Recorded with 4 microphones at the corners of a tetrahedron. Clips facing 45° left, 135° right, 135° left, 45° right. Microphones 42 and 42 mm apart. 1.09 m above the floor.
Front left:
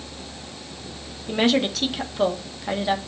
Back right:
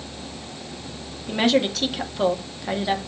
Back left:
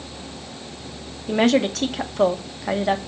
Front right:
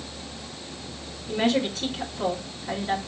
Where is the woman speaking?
135° left, 1.5 m.